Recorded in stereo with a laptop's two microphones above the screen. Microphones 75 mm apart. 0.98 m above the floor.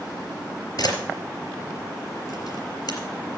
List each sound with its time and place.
0.8 s a camera shutter: 70° left (ahead or behind), 3.5 m